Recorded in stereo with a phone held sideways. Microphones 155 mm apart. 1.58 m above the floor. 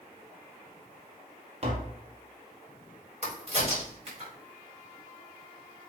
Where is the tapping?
40° right (ahead or behind), 0.9 m.